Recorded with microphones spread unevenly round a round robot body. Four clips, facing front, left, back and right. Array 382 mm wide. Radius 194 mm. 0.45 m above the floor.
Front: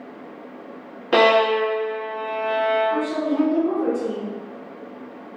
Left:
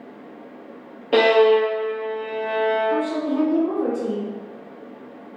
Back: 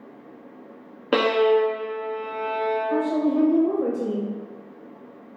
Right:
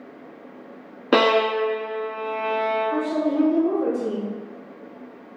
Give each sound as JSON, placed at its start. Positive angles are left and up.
{"t": 1.1, "sound": "a violin", "azimuth_deg": -90, "distance_m": 1.3}
{"t": 2.9, "sound": "a woman speaking", "azimuth_deg": -170, "distance_m": 2.0}